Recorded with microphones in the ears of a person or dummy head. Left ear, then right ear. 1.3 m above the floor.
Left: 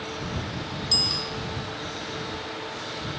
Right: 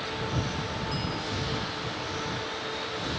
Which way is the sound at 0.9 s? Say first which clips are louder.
Left 9 dB; 75° left (ahead or behind).